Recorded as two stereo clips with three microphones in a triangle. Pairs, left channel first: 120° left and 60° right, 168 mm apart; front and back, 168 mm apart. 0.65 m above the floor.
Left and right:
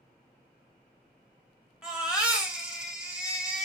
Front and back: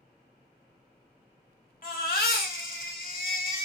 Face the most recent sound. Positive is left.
turn(degrees=25)